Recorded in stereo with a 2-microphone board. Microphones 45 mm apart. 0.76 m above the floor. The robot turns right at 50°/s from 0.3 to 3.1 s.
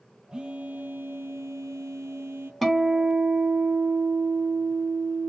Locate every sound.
0.3 s a phone buzzing: 165° right, 0.6 m; by 2.5 s 55° right, 0.6 m
2.6 s a guitar: centre (ahead or behind), 0.9 m; by 5.3 s 25° right (ahead or behind), 0.9 m